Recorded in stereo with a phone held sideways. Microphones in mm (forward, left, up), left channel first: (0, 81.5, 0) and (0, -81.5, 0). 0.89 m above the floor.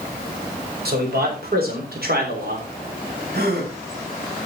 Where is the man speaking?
75° right (ahead or behind), 4.5 m; by 2.7 s 70° right (ahead or behind), 3 m.